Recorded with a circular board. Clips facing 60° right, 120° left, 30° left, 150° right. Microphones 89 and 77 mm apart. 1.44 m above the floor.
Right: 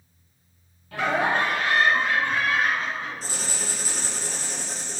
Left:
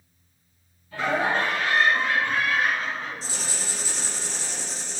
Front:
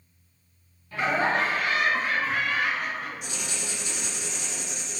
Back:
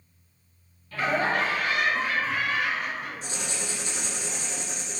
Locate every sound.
0.9 s laughter: 45° right, 1.1 m; by 4.1 s 10° left, 3 m
3.2 s writing: 100° right, 0.7 m